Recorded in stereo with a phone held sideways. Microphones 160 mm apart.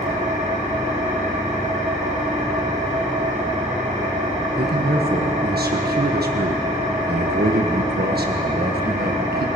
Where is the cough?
No cough in this recording.